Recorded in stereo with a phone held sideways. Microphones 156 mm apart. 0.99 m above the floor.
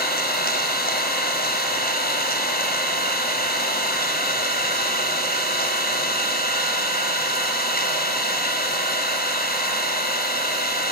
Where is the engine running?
85° left, 4.5 m.